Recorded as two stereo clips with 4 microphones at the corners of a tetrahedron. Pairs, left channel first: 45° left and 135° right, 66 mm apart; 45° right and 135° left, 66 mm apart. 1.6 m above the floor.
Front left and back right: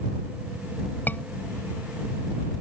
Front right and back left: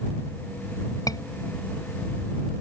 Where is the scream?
15° right.